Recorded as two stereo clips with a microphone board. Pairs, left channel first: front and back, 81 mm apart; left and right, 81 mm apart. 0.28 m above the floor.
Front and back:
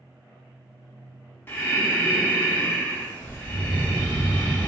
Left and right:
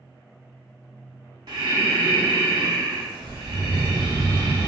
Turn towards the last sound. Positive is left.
turn(degrees=-65)